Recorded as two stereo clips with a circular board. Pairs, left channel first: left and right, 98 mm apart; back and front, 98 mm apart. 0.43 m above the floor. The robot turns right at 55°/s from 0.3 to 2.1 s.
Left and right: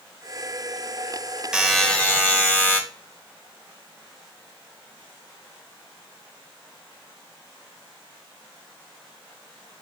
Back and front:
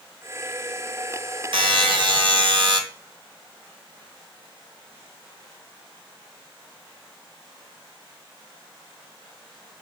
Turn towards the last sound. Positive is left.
turn(degrees=25)